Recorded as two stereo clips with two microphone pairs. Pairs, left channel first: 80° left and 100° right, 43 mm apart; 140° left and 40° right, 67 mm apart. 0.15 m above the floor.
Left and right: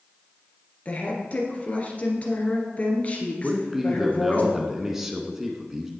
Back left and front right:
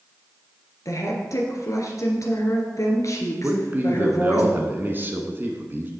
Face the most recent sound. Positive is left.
turn(degrees=-30)